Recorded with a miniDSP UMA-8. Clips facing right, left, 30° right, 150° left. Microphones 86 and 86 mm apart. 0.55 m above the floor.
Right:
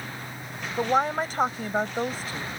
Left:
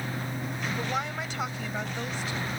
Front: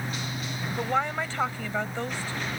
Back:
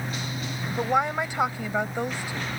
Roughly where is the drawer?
No drawer in this recording.